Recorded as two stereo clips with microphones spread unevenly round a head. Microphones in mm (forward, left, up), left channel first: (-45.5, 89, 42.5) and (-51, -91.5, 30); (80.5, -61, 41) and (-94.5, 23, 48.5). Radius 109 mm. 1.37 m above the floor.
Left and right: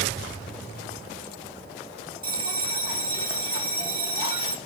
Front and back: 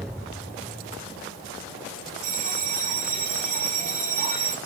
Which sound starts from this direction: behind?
A bell, at 2.2 s.